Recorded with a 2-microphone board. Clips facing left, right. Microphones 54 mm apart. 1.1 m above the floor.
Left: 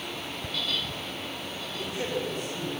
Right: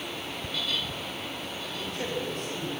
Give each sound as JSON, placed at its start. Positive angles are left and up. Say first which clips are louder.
{"t": 1.7, "sound": "a man speaking", "louder": "left 2 dB", "side_deg": 15, "distance_m": 7.0}